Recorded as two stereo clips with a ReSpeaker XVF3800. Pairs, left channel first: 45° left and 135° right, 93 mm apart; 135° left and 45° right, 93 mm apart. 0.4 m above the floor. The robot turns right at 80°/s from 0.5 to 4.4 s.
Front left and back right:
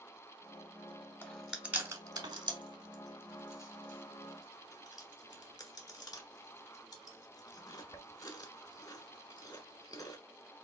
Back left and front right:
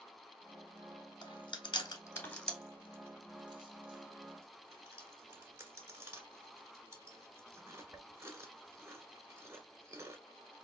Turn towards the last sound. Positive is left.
turn(degrees=10)